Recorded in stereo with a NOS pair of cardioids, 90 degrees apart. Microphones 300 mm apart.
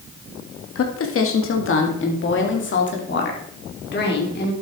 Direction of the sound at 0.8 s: 50° left.